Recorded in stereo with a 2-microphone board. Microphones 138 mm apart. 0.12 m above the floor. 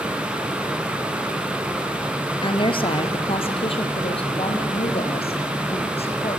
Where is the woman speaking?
35° left (ahead or behind), 1.9 m; by 6.4 s 45° left (ahead or behind), 6 m.